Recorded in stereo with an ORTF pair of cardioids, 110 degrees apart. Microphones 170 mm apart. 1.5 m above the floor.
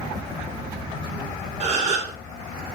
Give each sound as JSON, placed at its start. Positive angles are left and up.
{"t": 1.6, "sound": "a gasp", "azimuth_deg": -45, "distance_m": 4.0}